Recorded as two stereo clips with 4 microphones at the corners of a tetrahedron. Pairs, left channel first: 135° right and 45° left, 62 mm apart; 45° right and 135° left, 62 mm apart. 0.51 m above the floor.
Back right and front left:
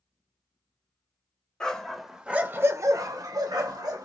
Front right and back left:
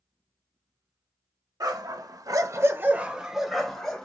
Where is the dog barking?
145° left, 0.7 m; by 4.0 s 35° left, 1.0 m.